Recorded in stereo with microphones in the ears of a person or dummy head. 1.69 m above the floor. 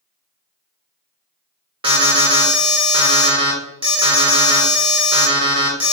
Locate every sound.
1.8 s an alarm: 25° right (ahead or behind), 0.8 m